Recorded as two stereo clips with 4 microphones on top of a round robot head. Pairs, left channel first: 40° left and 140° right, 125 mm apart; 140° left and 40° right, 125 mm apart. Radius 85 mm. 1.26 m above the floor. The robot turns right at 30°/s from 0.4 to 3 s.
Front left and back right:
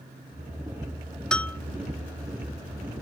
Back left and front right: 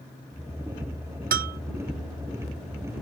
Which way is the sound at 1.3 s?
40° right.